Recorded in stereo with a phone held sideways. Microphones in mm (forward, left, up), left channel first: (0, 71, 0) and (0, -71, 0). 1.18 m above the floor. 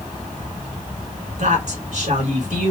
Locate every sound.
1.4 s a woman speaking: 60° right (ahead or behind), 2 m